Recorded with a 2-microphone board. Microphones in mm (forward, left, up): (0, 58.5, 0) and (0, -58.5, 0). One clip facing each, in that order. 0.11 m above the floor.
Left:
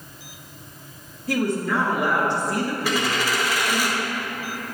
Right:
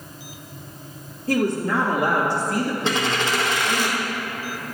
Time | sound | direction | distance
1.3 | a woman speaking | 30° right (ahead or behind) | 1.8 m
2.8 | a dropped coin | 25° right (ahead or behind) | 1.1 m